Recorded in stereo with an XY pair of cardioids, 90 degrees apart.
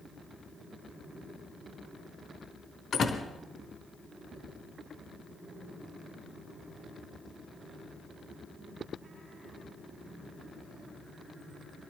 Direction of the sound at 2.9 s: 65° left.